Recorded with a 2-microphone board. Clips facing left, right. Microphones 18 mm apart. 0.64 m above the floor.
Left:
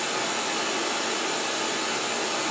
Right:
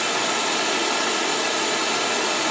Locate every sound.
0.0 s running water: 35° right (ahead or behind), 1.7 m